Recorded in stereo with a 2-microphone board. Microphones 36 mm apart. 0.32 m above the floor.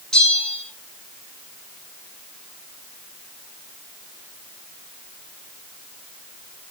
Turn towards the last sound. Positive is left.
turn(degrees=15)  # may be behind; listen again after turning